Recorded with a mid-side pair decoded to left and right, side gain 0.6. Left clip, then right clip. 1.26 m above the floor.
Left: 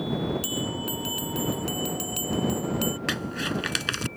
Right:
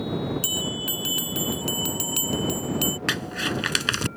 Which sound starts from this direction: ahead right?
A bell, at 0.4 s.